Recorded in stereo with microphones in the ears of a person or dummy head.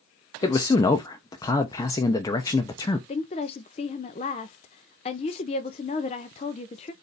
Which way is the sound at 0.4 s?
15° left (ahead or behind).